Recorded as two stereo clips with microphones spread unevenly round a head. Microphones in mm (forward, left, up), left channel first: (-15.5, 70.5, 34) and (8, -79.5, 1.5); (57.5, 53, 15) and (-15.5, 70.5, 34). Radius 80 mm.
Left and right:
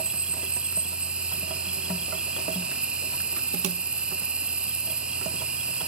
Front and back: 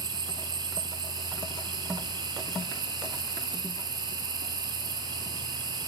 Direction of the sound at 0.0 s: 155° right.